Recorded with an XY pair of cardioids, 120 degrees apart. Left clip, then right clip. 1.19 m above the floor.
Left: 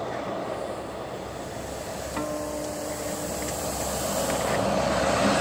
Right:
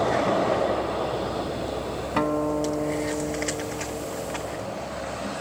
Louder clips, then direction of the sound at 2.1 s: Right 7 dB; 55° right.